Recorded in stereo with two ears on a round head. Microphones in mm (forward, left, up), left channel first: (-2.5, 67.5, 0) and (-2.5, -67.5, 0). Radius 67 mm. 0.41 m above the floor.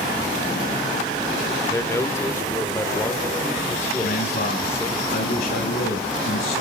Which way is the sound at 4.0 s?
65° left (ahead or behind).